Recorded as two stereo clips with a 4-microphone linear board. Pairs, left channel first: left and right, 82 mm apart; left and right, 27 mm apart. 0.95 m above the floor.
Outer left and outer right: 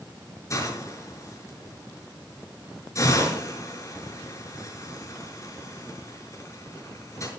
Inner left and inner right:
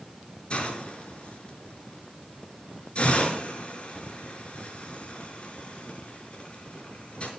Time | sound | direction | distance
0.5 | a hiss | 40° left (ahead or behind) | 5.5 m